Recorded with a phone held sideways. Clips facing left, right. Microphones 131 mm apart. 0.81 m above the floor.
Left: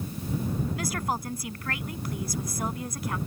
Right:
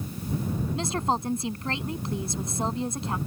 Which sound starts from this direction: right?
A woman speaking, at 0.8 s.